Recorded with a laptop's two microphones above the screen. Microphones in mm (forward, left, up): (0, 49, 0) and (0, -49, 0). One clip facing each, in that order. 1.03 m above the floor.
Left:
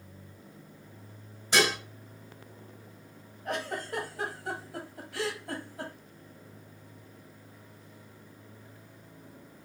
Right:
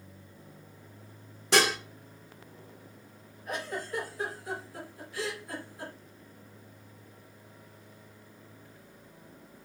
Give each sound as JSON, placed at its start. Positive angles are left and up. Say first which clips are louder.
{"t": 1.5, "sound": "dishes clattering", "louder": "right 1 dB", "side_deg": -85, "distance_m": 1.5}
{"t": 3.5, "sound": "a giggle", "louder": "left 2 dB", "side_deg": 70, "distance_m": 1.4}